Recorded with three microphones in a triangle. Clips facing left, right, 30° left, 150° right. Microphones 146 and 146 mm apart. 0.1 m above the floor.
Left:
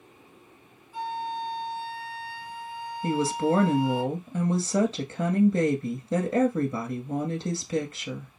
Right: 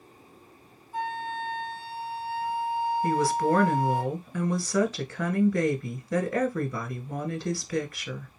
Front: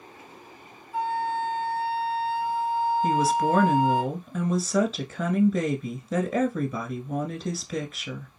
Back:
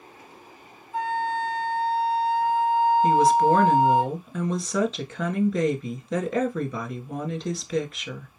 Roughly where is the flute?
Ahead right.